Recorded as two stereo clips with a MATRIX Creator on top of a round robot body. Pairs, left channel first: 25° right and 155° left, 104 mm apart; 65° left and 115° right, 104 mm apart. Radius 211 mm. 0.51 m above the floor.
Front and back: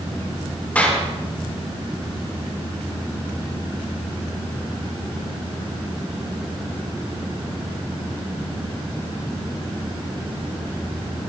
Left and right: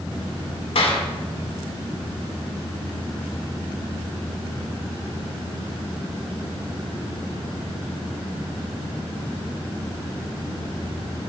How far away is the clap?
About 5.5 m.